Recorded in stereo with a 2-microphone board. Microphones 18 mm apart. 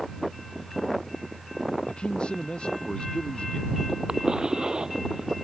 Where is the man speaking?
60° left (ahead or behind).